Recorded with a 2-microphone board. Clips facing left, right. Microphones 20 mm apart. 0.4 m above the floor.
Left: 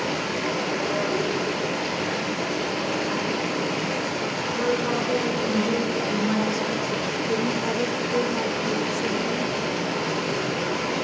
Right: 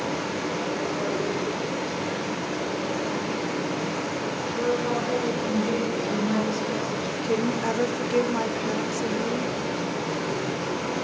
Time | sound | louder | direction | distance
0.0 | running water | left 2 dB | 85° left | 5.5 m
4.5 | a woman speaking | left 1 dB | 15° left (ahead or behind) | 4.5 m
7.2 | a woman speaking | right 2 dB | 15° right (ahead or behind) | 0.8 m